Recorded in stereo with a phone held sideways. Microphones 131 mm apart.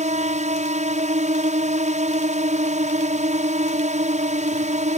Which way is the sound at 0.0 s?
70° right (ahead or behind).